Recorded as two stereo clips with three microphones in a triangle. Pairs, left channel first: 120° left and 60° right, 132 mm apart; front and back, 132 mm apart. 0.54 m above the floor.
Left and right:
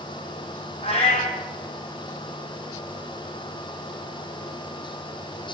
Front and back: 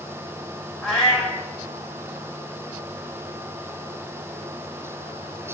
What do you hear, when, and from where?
0.8 s a cat meowing: 85° left, 1.6 m